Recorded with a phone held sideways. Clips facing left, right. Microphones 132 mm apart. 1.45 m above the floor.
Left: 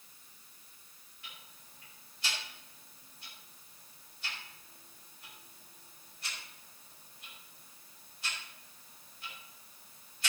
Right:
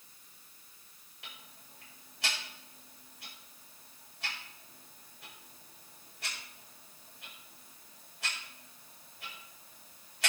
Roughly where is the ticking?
Right.